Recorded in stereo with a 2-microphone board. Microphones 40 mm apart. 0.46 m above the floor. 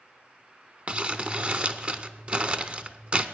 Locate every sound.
0.9 s crumpling: 35° right (ahead or behind), 0.7 m